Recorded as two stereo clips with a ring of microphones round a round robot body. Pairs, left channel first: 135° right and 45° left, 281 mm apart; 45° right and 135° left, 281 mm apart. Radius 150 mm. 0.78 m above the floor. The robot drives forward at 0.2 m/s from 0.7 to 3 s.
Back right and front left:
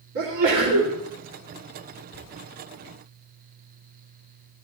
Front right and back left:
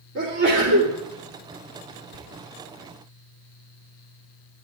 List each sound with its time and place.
0.1 s a sneeze: 85° left, 2.5 m; by 0.9 s 90° left, 2.5 m
2.1 s whispering: 140° left, 1.5 m